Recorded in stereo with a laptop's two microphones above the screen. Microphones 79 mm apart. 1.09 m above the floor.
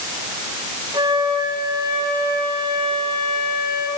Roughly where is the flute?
Right.